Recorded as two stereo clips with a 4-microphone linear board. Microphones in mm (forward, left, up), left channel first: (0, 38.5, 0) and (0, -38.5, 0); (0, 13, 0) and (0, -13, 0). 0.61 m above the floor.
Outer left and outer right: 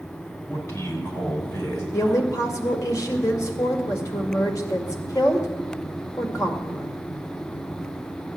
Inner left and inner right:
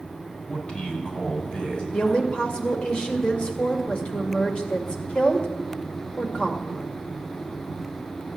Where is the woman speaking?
45° left (ahead or behind), 2 m.